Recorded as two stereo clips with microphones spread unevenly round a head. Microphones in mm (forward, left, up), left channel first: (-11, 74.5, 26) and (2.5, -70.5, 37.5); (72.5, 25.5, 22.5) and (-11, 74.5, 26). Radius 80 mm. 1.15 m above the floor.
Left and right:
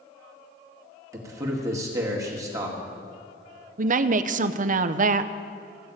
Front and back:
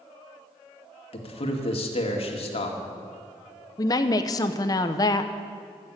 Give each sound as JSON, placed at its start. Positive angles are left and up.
{"t": 1.1, "sound": "a man speaking", "azimuth_deg": -15, "distance_m": 2.0}
{"t": 3.8, "sound": "a woman speaking", "azimuth_deg": -70, "distance_m": 0.6}